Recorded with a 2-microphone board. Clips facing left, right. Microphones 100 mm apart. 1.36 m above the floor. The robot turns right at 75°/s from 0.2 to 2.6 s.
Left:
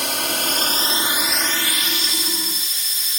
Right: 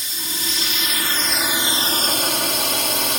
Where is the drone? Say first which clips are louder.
Left 8 dB; 95° left; by 3.2 s 85° right.